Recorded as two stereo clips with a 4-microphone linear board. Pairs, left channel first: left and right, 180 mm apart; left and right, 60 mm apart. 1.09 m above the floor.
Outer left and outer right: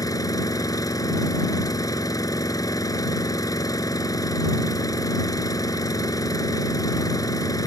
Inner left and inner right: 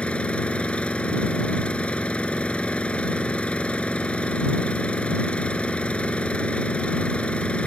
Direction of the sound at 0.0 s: 20° left (ahead or behind).